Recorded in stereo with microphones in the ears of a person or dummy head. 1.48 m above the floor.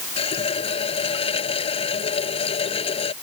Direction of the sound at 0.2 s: 25° left (ahead or behind).